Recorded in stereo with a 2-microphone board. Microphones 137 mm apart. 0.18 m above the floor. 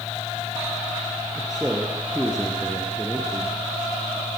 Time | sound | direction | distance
1.4 | a man speaking | 5° right (ahead or behind) | 3.5 m